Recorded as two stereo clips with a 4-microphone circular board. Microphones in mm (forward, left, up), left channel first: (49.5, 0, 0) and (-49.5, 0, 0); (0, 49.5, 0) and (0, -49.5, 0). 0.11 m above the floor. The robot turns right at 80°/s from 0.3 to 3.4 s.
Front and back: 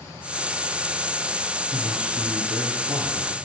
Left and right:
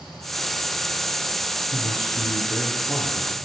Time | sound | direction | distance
1.7 | a man speaking | 70° left | 2.5 m